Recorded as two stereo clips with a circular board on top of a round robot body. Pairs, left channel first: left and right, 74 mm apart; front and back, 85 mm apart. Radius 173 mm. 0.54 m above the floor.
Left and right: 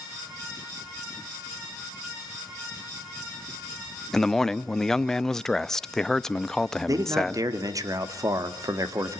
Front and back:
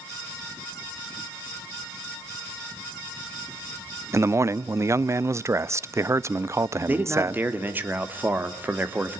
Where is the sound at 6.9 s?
115° right, 2 m.